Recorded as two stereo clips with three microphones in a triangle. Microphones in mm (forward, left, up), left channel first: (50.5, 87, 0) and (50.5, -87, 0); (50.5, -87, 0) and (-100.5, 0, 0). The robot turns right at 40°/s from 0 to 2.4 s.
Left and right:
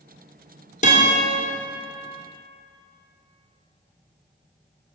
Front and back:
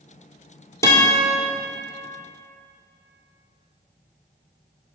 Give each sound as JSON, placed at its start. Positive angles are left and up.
{"t": 0.8, "sound": "a guitar", "azimuth_deg": 45, "distance_m": 2.0}